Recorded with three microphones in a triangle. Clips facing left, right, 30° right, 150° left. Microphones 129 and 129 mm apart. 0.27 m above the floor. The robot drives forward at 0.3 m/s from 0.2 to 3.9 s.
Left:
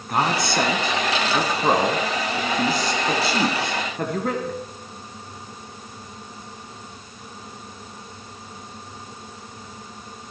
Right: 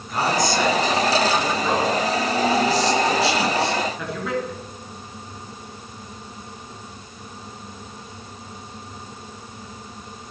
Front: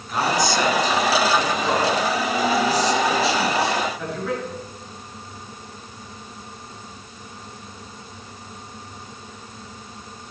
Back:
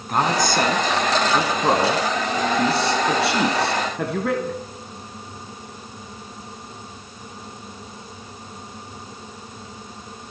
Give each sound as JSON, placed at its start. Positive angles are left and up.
{"t": 0.1, "sound": "a man speaking", "azimuth_deg": 115, "distance_m": 3.5}